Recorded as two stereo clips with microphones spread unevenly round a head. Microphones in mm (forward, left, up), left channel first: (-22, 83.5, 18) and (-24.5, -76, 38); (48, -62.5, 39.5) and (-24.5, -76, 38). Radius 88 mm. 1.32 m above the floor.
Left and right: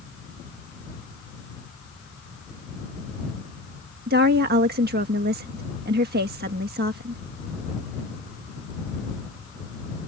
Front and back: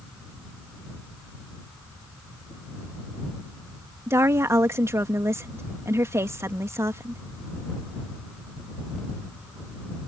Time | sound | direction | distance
4.1 | a woman speaking | 115° right | ?